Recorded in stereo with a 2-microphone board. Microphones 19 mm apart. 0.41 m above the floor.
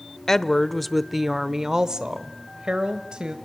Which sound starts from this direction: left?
A woman speaking, at 0.3 s.